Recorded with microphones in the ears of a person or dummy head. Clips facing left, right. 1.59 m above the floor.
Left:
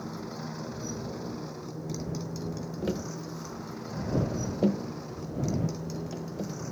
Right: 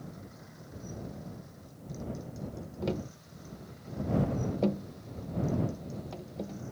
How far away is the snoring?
No snoring in this recording.